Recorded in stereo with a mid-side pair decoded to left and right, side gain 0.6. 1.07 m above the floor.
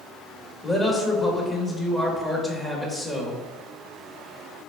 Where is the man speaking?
20° left, 1.5 m.